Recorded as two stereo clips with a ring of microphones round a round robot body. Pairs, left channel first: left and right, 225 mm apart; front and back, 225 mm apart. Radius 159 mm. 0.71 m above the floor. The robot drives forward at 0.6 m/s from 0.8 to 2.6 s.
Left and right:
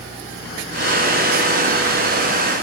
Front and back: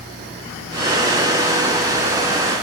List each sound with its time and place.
Only background noise.